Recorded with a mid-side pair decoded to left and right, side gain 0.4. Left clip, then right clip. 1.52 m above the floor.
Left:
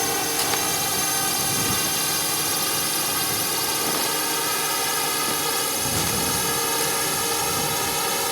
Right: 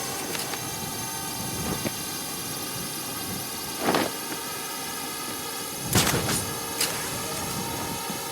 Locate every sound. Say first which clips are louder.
0.0 s a drone: left 8 dB; 70° left; by 8.3 s 65° left